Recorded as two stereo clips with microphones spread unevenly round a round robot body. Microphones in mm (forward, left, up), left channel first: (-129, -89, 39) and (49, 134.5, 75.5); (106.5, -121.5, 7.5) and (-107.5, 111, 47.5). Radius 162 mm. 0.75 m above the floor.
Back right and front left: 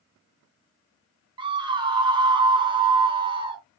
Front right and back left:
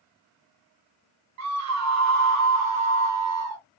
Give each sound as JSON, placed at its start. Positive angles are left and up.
{"t": 1.4, "sound": "a scream", "azimuth_deg": 125, "distance_m": 1.3}